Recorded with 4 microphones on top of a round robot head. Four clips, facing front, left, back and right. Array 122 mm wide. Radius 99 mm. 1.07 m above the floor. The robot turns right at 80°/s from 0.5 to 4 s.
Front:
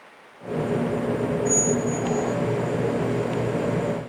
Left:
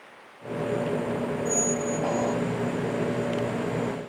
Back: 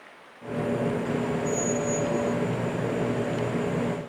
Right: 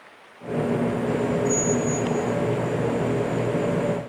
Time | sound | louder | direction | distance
1.4 | a squeak | right 4 dB, front 3 dB | 20° left | 1.1 m